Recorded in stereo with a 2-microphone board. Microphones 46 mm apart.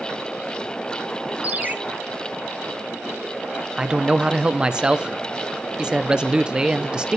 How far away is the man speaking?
About 0.6 m.